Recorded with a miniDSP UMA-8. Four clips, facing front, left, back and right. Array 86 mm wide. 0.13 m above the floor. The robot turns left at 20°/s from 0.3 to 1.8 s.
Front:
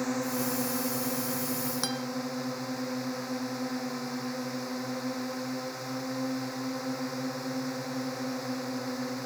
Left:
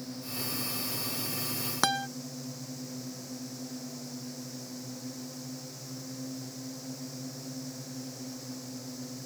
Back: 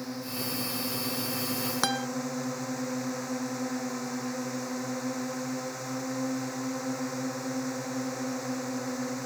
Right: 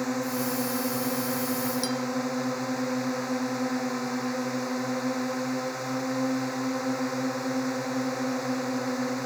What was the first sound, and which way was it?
A drone, 65° right.